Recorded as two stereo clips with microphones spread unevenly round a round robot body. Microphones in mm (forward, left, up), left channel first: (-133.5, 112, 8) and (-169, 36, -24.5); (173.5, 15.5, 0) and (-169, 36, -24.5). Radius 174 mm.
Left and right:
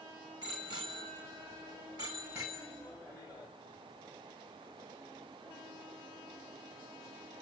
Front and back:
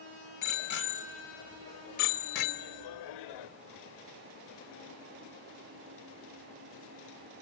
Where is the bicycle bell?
70° right, 2 m; by 3.5 s 15° right, 1.3 m.